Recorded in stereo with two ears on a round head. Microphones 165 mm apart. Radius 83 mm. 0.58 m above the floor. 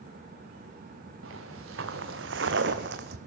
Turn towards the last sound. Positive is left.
turn(degrees=-60)  # may be behind; listen again after turning